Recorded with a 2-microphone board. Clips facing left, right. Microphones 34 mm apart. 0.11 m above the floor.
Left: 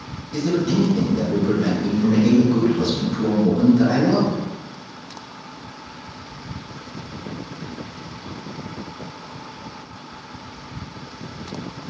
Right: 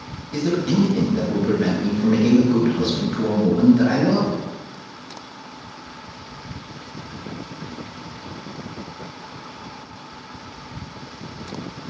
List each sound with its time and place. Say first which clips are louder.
0.3 s a man speaking: even; 25° right (ahead or behind), 1.8 m